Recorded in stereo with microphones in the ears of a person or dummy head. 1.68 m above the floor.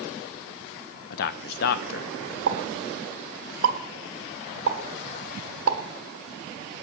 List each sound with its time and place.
1.1 s a man speaking: 65° left (ahead or behind), 0.8 m
2.5 s a pop: 75° right (ahead or behind), 1.5 m